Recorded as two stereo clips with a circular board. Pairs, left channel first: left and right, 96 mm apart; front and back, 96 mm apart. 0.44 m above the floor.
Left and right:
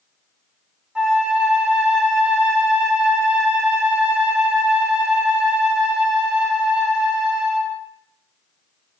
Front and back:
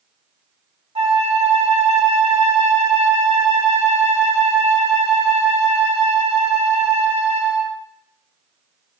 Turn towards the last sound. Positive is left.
turn(degrees=-170)